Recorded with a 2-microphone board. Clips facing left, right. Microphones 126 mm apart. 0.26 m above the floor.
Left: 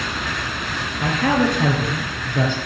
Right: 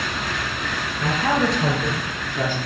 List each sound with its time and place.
1.0 s a man speaking: 45° left (ahead or behind), 3.5 m; by 2.6 s 70° left (ahead or behind), 4.5 m